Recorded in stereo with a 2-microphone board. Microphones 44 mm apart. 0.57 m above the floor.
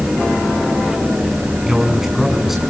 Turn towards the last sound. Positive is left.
turn(degrees=-5)  # may be behind; listen again after turning